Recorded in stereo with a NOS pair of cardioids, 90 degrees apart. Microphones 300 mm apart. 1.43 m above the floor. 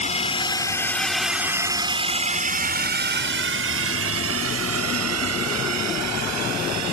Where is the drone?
25° left; by 6.9 s 65° right.